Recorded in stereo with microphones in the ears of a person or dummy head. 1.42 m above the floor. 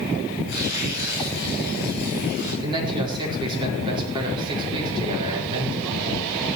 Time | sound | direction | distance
0.5 | tearing paper | 55° left (ahead or behind) | 8.5 m
2.6 | a man speaking | 25° right (ahead or behind) | 4.5 m